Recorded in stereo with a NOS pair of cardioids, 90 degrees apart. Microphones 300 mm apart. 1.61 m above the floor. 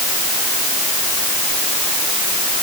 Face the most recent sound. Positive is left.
No sound to turn to.